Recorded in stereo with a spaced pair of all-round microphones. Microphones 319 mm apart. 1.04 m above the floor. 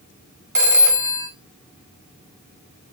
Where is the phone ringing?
75° right (ahead or behind), 0.7 m.